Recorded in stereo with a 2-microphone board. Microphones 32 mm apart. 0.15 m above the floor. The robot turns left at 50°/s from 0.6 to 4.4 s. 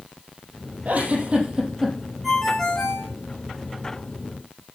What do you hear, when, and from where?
0.8 s a giggle: 120° right, 5 m; by 1.9 s 175° right, 5 m
2.2 s a ringtone: straight behind, 8 m; by 3.1 s 140° left, 8 m